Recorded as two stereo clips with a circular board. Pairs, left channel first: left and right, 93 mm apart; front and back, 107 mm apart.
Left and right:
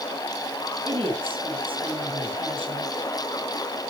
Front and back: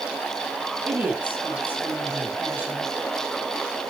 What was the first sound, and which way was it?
A woman speaking, 105° right.